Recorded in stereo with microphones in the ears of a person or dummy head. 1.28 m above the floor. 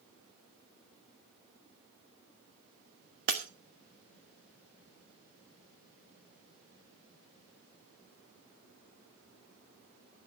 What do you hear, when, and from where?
3.3 s breaking glass: 55° right (ahead or behind), 1.6 m